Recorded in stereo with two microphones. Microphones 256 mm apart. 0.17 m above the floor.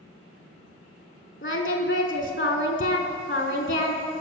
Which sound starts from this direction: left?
Singing, at 1.4 s.